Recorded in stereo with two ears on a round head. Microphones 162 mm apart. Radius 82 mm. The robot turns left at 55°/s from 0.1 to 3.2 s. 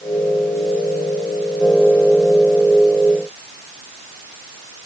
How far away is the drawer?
I don't hear a drawer.